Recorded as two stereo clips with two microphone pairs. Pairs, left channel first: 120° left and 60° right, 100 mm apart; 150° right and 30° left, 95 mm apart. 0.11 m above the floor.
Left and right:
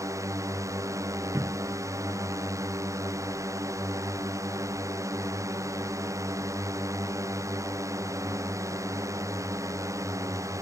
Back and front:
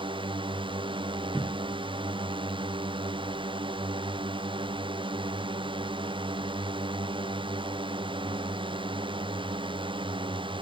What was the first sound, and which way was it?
A drone, straight ahead.